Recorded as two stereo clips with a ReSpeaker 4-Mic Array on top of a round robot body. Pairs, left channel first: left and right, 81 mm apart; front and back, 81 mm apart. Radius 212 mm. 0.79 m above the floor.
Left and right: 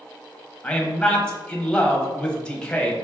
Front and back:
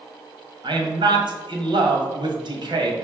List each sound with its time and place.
0.6 s a man speaking: 170° left, 1.7 m